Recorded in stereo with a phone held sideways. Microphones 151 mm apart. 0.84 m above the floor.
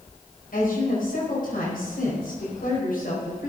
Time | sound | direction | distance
0.5 | a woman speaking | 70° left (ahead or behind) | 4.5 m